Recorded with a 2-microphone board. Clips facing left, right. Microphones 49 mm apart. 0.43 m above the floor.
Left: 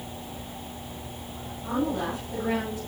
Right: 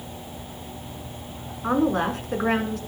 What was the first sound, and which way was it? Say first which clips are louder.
A woman speaking: right 6 dB; 60° right (ahead or behind).